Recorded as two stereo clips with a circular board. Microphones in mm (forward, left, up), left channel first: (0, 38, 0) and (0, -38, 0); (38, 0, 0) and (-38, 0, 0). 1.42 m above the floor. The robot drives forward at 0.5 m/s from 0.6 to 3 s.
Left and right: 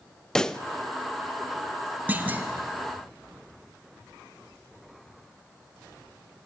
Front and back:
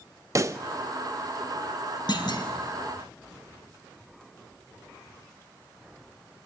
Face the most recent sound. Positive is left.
turn(degrees=-30)